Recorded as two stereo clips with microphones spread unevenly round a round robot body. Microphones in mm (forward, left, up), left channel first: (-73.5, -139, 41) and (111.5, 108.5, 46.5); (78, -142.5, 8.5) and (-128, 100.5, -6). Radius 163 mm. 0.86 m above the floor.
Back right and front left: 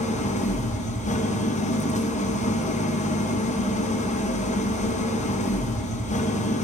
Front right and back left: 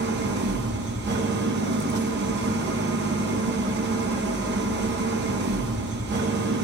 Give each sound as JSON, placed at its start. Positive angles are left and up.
{"t": 0.0, "sound": "an engine running", "azimuth_deg": 175, "distance_m": 0.7}